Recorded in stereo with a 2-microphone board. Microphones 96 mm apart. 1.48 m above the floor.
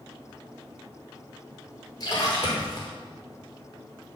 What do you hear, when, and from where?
2.0 s a splash: 45° left (ahead or behind), 5.5 m